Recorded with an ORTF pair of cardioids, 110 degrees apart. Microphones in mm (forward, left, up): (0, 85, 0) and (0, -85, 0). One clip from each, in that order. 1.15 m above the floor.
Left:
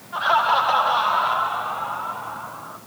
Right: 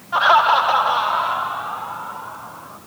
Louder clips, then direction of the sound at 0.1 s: Right 5 dB; 45° right.